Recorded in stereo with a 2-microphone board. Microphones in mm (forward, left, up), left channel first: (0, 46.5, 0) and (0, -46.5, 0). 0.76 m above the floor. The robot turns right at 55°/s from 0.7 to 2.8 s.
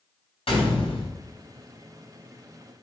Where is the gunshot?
80° left, 4 m; by 1.1 s 70° left (ahead or behind), 4 m.